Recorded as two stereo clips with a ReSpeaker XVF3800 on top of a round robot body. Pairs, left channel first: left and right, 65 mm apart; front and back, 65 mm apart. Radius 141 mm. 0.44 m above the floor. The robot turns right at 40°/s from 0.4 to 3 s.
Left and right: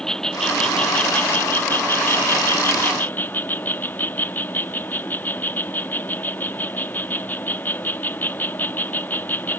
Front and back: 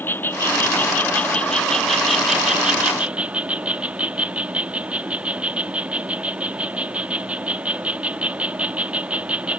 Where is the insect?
20° left; by 9.6 s 125° left.